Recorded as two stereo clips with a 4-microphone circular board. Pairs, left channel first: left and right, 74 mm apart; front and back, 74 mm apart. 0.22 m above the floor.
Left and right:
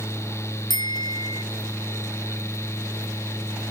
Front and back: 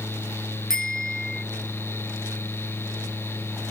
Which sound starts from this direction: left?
A bicycle bell, at 0.7 s.